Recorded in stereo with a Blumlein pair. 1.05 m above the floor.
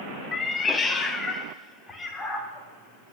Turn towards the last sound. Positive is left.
turn(degrees=15)